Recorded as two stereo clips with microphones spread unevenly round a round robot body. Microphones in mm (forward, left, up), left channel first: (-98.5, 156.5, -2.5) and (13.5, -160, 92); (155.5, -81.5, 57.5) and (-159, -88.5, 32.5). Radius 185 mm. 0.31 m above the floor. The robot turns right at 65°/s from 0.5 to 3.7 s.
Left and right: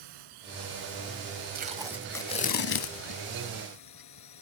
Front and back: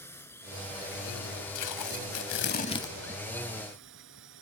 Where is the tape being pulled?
Straight ahead; by 4.4 s 140° left.